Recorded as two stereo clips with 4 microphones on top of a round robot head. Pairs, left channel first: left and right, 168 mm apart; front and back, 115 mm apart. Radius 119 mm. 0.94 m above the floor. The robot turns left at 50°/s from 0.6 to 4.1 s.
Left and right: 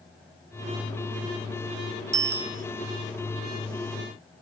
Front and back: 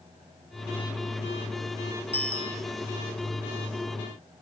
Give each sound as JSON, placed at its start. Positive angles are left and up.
{"t": 2.1, "sound": "a bicycle bell", "azimuth_deg": -120}